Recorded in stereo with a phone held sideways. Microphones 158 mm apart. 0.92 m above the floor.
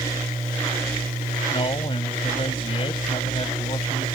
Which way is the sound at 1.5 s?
35° left (ahead or behind).